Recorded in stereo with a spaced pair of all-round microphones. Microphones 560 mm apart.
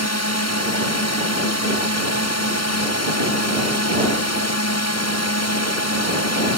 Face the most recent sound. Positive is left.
turn(degrees=25)  # may be behind; listen again after turning